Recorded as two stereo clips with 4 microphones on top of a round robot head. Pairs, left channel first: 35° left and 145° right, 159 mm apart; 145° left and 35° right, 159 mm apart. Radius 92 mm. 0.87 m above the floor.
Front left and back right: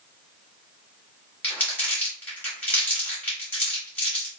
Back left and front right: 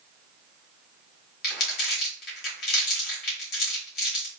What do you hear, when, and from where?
1.4 s crumpling: 115° left, 1.4 m